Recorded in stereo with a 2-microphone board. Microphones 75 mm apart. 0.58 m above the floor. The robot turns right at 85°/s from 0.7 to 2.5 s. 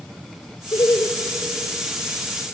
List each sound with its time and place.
0.7 s laughter: 100° left, 2.0 m; by 1.1 s 135° left, 2.0 m